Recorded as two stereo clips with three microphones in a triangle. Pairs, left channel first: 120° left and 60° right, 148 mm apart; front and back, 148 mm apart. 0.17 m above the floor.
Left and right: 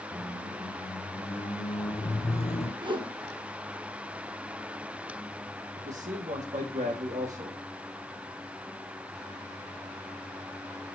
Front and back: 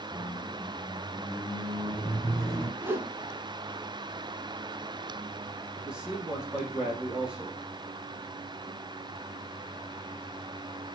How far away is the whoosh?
About 1.4 m.